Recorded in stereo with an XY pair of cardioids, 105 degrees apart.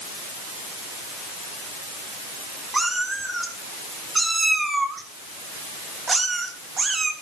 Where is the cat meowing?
15° right, 8 m; by 7.1 s 35° right, 4 m.